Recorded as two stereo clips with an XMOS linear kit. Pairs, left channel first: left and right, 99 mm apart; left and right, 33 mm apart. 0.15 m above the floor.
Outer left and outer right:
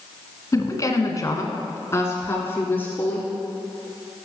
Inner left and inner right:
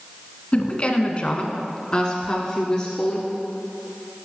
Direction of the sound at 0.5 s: 30° left (ahead or behind).